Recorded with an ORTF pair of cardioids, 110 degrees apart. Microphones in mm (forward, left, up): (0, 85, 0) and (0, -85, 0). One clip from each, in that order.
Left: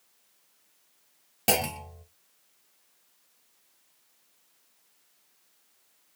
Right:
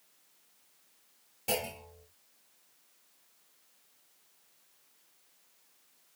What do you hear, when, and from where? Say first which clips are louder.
1.5 s a clunk: left 7 dB; 65° left, 0.7 m